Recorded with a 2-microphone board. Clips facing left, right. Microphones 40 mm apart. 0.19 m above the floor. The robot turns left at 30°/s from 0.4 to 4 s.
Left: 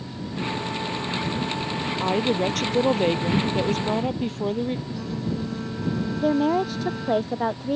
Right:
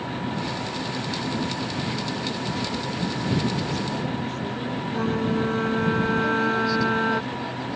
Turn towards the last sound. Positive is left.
turn(degrees=50)  # may be behind; listen again after turning